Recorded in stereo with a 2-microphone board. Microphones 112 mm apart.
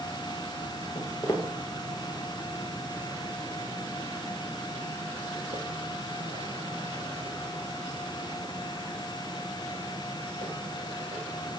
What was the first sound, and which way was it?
Footsteps, 40° left (ahead or behind).